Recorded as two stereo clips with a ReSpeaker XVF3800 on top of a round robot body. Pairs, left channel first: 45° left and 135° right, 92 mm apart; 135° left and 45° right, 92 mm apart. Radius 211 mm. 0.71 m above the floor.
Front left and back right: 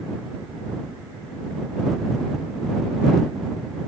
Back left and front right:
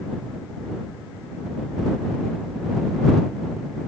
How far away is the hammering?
No hammering in this recording.